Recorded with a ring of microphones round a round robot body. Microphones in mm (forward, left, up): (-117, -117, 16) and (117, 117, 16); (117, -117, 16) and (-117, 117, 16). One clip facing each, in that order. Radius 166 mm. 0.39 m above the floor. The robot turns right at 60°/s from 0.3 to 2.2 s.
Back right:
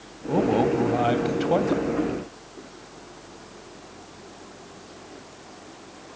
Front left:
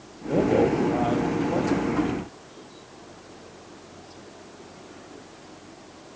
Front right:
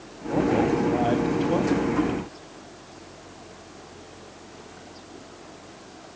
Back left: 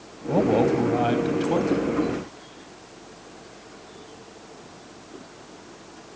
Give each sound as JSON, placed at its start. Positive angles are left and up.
{"t": 0.3, "sound": "a man speaking", "azimuth_deg": 145, "distance_m": 2.5}